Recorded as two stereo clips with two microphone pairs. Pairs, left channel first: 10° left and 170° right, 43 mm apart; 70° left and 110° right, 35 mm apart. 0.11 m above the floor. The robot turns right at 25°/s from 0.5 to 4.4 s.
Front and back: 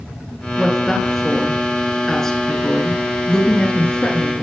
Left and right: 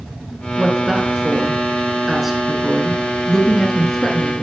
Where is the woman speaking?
85° right, 1.1 m; by 4.4 s 10° left, 1.1 m.